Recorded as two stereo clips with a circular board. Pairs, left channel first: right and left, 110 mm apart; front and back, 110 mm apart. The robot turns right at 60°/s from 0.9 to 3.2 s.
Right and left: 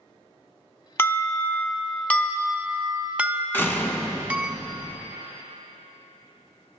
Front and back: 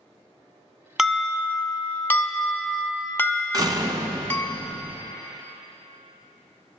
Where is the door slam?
150° right, 0.9 m.